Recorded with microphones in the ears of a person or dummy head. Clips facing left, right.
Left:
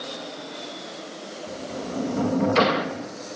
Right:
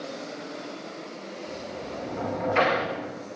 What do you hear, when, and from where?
1.5 s a sliding door: 50° left (ahead or behind), 1.0 m